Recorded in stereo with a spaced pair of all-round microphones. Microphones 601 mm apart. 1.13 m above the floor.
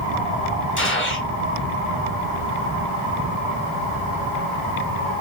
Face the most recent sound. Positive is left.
turn(degrees=20)  # may be behind; listen again after turning